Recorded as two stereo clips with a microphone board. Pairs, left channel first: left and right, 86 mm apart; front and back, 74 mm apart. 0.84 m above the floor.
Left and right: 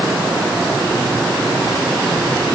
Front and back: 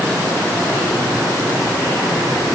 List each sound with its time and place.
Only background noise.